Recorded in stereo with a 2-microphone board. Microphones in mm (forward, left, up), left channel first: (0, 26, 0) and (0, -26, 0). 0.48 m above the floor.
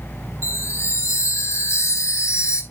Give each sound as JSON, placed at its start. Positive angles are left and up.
{"t": 0.4, "sound": "a chime", "side_deg": 60, "distance_m": 3.5}